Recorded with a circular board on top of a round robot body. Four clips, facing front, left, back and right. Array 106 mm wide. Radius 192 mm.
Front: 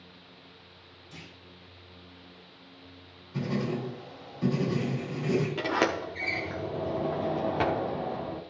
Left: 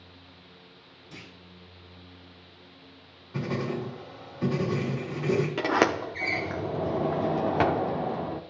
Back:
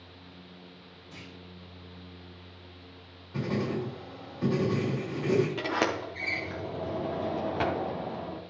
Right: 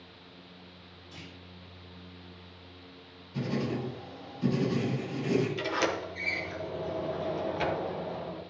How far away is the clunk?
About 3 m.